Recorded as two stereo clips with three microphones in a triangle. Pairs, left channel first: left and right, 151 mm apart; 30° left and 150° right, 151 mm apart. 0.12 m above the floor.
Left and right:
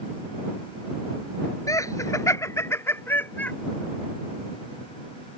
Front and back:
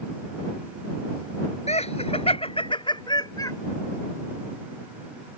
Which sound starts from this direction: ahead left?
Laughter, at 1.7 s.